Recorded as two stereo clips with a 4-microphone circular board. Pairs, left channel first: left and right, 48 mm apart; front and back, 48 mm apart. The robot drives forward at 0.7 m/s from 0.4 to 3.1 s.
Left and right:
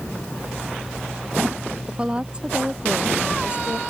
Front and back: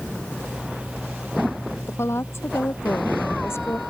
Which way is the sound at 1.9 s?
20° right.